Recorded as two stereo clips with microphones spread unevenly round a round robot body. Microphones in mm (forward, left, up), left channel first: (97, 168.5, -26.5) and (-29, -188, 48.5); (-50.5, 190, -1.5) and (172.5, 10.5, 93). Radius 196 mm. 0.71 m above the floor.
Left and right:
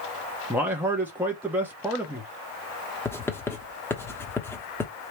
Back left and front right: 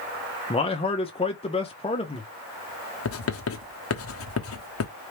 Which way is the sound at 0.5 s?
155° left.